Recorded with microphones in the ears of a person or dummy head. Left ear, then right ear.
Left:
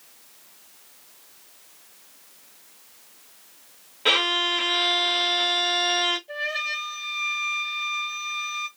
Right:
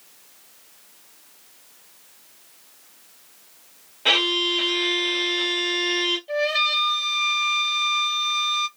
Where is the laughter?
I don't hear laughter.